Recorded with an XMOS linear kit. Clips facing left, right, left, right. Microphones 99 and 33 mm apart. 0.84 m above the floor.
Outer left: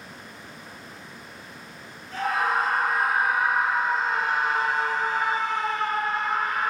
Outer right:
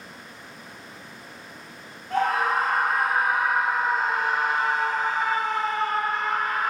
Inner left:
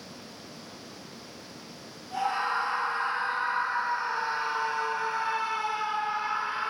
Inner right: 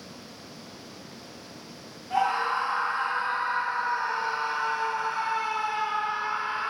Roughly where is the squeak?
No squeak in this recording.